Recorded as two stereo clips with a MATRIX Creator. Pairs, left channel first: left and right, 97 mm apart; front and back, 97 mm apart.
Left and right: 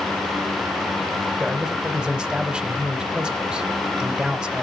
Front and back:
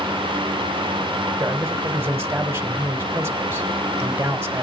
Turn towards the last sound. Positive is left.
turn(degrees=-160)